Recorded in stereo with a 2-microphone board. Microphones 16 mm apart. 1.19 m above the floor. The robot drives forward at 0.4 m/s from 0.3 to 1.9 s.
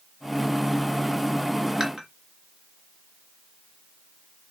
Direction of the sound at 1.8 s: 50° right (ahead or behind).